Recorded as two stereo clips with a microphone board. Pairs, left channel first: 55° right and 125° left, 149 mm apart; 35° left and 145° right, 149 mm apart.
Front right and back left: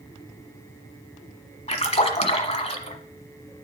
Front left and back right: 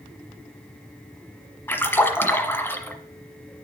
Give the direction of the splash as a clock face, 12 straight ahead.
1 o'clock.